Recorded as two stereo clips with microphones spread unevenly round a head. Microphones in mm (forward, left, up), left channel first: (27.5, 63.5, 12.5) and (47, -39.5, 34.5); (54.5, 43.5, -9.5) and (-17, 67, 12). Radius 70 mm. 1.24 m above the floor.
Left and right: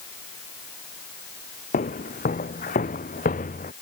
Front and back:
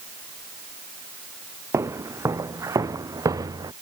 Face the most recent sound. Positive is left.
turn(degrees=130)